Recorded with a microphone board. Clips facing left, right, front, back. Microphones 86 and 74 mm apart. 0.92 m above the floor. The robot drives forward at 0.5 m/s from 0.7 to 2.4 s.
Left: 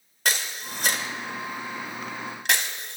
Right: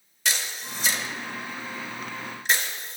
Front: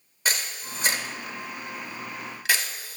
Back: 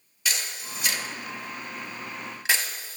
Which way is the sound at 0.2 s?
50° left.